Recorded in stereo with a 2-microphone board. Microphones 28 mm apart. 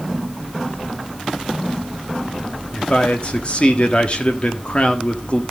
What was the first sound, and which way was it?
A man speaking, 40° left (ahead or behind).